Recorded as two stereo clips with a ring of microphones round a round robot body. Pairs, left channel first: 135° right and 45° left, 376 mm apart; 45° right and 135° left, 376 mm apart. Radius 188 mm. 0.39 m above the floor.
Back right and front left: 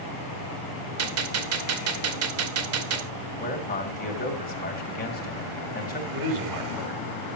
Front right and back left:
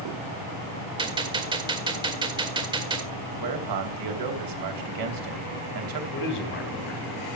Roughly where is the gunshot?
Ahead left.